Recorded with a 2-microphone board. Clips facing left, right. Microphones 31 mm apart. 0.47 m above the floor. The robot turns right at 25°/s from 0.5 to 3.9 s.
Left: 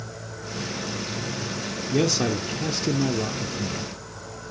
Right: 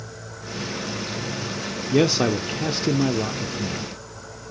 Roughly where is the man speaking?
Ahead right.